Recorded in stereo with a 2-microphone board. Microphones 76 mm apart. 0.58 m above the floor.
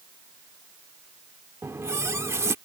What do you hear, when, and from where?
1.6 s a running tap: 35° right (ahead or behind)